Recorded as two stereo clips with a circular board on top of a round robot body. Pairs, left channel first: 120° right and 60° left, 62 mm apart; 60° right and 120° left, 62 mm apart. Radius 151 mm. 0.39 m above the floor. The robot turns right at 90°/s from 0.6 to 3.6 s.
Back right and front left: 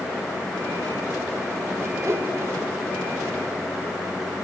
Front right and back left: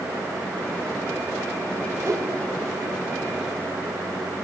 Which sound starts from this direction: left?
A whoosh, at 2.0 s.